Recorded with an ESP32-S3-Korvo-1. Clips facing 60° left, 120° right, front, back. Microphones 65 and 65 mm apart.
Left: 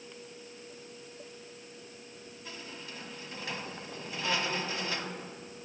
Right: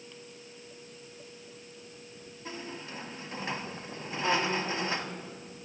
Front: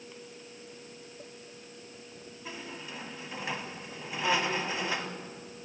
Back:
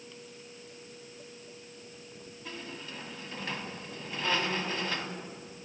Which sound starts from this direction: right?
A squeak, at 2.5 s.